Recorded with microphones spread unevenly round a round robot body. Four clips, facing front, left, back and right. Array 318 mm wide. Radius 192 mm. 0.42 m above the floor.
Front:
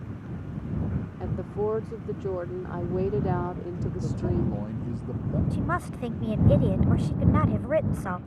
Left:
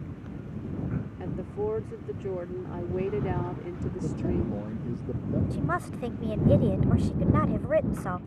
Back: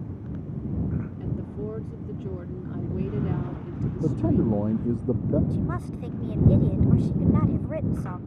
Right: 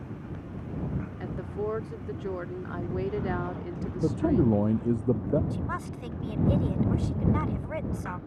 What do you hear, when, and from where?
1.2 s a woman speaking: 30° left
4.0 s a man speaking: 115° right
5.5 s a woman speaking: 40° left